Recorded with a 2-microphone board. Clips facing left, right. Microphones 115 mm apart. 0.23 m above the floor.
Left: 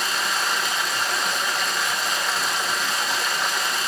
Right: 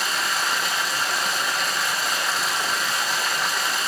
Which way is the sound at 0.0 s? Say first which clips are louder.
Even; centre (ahead or behind).